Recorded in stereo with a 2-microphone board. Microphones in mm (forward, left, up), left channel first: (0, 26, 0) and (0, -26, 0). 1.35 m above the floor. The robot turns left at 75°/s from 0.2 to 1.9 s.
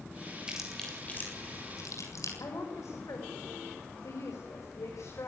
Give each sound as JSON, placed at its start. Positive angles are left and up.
{"t": 0.5, "sound": "chewing", "side_deg": -15, "distance_m": 7.5}
{"t": 2.4, "sound": "a woman speaking", "side_deg": 90, "distance_m": 6.0}